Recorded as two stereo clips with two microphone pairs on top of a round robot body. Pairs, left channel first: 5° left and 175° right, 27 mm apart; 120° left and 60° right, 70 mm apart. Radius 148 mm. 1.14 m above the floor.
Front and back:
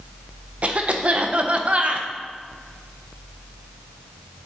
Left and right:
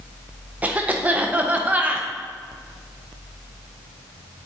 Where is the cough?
130° right, 0.6 m.